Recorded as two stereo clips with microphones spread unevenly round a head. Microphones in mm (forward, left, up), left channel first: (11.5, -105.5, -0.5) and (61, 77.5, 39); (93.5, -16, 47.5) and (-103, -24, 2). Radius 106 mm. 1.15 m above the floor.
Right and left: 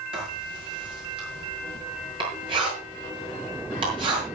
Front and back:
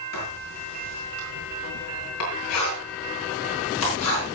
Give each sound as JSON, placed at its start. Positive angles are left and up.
{"t": 0.1, "sound": "writing", "azimuth_deg": 10, "distance_m": 8.0}